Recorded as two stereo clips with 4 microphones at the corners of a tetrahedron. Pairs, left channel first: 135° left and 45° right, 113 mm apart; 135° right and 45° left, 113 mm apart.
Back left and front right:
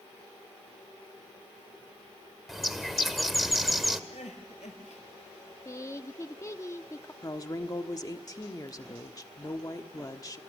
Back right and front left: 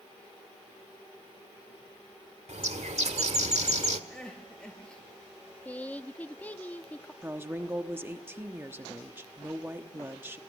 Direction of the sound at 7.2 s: 105° left.